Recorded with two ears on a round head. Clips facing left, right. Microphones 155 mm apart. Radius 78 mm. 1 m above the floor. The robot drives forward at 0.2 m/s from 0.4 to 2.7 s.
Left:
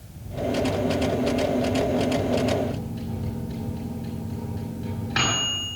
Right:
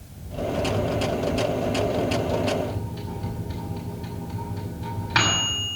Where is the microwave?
80° right, 6 m.